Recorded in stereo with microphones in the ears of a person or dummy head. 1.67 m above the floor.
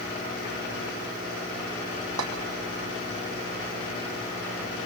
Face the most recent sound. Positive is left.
turn(degrees=-80)